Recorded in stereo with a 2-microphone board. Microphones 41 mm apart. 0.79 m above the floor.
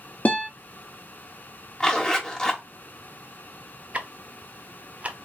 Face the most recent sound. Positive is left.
turn(degrees=-30)  # may be behind; listen again after turning